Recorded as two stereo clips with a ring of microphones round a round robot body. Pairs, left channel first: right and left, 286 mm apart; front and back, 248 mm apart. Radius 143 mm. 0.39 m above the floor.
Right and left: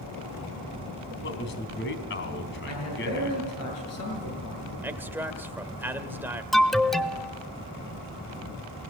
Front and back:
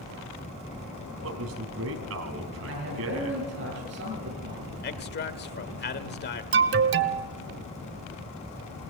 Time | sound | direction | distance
1.2 | a man speaking | 140° right | 2.5 m
2.7 | a man speaking | 125° right | 7 m
4.8 | a man speaking | 10° left | 1.4 m
6.5 | an alarm | straight behind | 0.6 m